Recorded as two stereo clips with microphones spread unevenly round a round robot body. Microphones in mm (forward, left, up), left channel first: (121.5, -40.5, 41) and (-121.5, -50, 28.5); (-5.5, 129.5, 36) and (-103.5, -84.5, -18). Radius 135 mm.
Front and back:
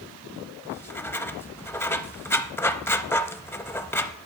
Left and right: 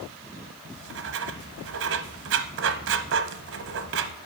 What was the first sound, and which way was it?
Writing, 80° right.